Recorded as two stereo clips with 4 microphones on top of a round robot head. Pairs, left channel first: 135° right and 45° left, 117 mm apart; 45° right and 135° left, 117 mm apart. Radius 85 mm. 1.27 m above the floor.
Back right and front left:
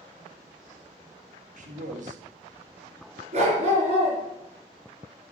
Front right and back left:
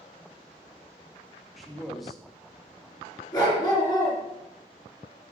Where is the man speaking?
45° left, 2 m.